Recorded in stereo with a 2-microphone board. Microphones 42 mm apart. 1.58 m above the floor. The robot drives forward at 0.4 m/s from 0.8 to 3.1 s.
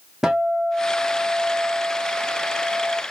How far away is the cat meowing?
No cat meowing in this recording.